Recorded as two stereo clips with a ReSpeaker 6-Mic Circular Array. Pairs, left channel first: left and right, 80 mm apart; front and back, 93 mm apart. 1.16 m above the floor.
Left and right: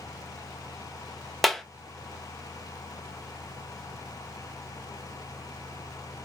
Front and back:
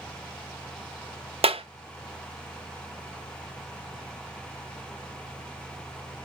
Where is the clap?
Straight behind, 0.7 m.